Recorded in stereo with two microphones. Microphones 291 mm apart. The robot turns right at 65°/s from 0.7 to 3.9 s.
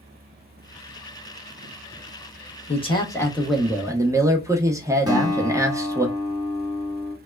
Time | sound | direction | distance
2.7 | a man speaking | 20° left (ahead or behind) | 0.7 m
5.1 | a guitar | 15° right (ahead or behind) | 1.5 m